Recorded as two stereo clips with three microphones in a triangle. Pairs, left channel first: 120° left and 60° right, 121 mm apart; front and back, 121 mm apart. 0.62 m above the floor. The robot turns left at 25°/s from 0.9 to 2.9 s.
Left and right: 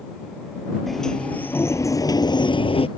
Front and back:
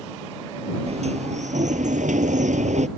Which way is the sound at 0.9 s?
150° right.